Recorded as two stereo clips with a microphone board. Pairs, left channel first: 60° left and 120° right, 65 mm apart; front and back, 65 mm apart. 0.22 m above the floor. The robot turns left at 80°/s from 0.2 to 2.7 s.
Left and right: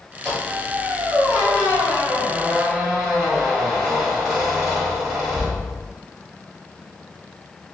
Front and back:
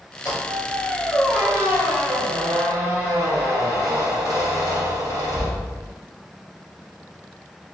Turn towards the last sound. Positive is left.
turn(degrees=150)